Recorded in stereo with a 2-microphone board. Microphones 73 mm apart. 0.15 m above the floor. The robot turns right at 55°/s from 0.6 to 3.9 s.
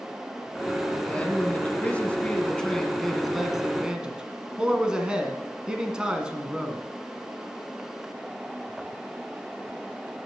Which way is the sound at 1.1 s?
20° left (ahead or behind).